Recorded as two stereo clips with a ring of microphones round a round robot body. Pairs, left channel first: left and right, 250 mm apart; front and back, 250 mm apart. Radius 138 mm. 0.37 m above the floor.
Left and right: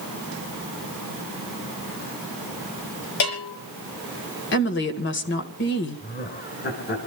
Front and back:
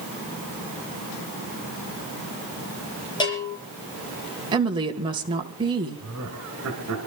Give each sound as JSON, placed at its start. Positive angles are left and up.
{"t": 3.2, "sound": "a bell", "azimuth_deg": 75, "distance_m": 7.0}
{"t": 4.5, "sound": "a woman speaking", "azimuth_deg": 110, "distance_m": 1.9}
{"t": 6.0, "sound": "laughter", "azimuth_deg": 140, "distance_m": 4.0}